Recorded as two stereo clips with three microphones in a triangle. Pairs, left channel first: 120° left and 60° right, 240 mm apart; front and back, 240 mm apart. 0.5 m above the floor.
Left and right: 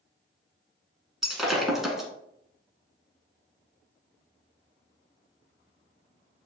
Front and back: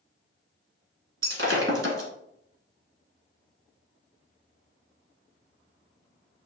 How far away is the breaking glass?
About 1.3 m.